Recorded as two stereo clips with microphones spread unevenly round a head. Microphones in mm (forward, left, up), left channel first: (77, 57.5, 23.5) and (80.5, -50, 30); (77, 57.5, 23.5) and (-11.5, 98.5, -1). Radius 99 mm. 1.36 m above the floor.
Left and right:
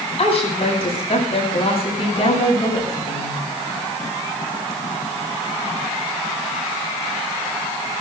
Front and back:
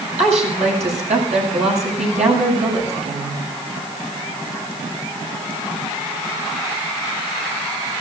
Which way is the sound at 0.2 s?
155° left.